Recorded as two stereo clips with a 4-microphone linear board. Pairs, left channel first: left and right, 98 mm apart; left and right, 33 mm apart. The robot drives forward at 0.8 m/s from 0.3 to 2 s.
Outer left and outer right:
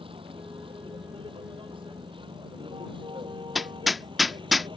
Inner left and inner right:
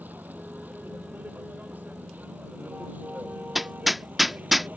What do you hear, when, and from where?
0.0 s a vehicle: 70° right (ahead or behind); by 4.8 s 60° right (ahead or behind)
3.5 s hammering: centre (ahead or behind)